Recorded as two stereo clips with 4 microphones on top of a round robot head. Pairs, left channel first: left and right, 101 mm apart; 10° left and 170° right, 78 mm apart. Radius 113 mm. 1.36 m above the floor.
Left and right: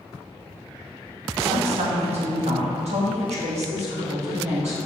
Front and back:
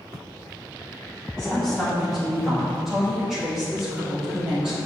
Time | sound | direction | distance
1.4 | a woman speaking | 70° right | 1.7 m